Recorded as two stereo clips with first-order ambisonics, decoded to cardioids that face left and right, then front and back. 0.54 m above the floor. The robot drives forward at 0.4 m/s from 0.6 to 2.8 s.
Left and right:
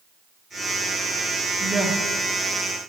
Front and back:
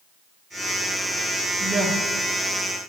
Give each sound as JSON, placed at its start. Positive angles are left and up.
{"t": 1.6, "sound": "a woman speaking", "azimuth_deg": -135, "distance_m": 0.6}